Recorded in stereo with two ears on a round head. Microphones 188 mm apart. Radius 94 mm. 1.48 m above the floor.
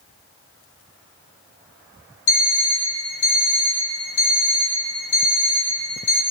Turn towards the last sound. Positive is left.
turn(degrees=60)  # may be behind; listen again after turning